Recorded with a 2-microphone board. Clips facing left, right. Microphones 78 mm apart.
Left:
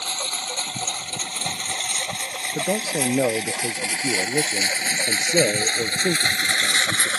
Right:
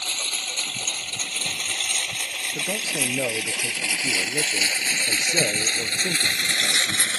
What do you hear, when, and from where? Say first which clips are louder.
0.0 s a lawn mower: left 3 dB; 35° left (ahead or behind); by 7.2 s 40° left (ahead or behind)
2.5 s a man speaking: left 6 dB; 25° left (ahead or behind)